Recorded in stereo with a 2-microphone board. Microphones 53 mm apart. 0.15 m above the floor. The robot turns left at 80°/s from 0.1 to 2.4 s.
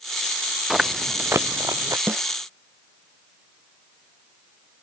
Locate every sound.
0.7 s chewing: centre (ahead or behind); by 2.0 s 75° right (ahead or behind)
2.1 s a snare drum: 45° right (ahead or behind); by 2.2 s 30° right (ahead or behind)